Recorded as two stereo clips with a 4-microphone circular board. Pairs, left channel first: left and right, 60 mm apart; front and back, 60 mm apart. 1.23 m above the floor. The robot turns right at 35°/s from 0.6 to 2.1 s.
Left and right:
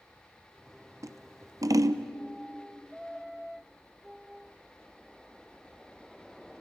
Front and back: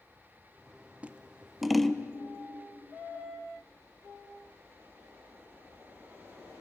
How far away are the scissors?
About 0.7 m.